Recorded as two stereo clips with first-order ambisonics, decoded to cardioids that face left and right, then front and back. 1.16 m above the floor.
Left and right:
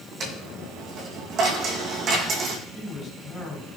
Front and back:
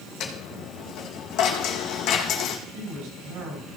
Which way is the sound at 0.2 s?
35° right.